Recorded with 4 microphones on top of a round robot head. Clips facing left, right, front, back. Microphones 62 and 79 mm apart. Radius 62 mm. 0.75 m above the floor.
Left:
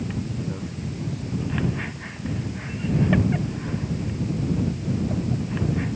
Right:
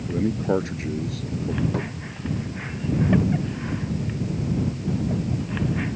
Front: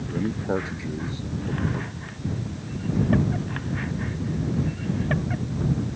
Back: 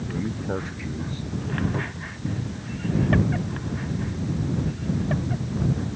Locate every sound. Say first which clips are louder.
0.1 s a man speaking: right 8 dB, front 4 dB; 75° right
1.7 s a cupboard door: right 3 dB, back 2 dB; 105° right